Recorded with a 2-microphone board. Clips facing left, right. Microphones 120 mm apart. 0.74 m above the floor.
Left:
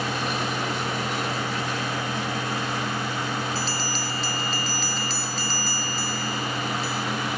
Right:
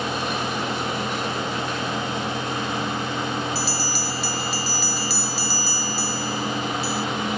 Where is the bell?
10° right (ahead or behind).